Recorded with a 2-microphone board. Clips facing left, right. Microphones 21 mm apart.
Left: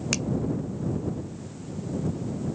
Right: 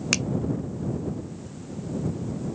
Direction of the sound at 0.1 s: 20° right (ahead or behind).